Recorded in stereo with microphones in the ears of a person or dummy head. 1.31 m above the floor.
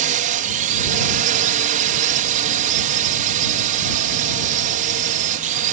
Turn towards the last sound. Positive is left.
turn(degrees=-45)  # may be behind; listen again after turning